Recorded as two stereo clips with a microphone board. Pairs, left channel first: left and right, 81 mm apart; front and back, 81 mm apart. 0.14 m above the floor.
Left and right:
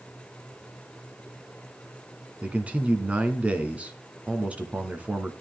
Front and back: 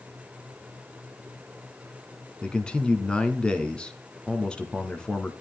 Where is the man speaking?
55° right, 1.0 m.